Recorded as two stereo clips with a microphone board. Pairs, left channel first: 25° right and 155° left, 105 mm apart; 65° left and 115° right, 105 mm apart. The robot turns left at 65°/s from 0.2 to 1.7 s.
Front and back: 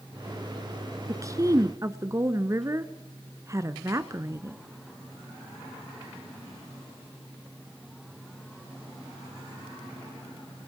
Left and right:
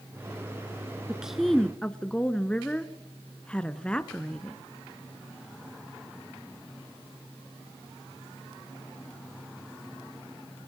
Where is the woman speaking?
Straight behind, 1.2 m; by 4.6 s 140° left, 1.2 m.